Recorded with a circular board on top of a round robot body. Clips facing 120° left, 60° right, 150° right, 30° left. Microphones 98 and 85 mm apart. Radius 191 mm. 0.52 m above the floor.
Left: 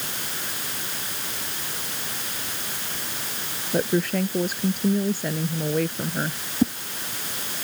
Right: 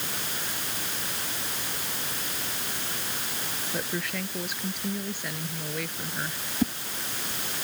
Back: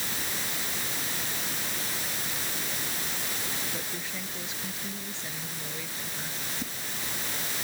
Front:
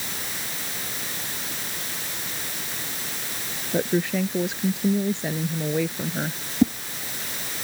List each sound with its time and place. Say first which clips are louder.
3.7 s a woman speaking: left 11 dB, front 15 dB; 65° left
6.6 s a whoosh: left 5 dB, front 23 dB; 45° left